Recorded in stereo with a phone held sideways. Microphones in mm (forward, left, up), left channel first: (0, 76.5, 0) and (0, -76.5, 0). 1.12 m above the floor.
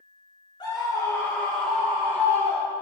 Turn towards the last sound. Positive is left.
turn(degrees=-30)  # may be behind; listen again after turning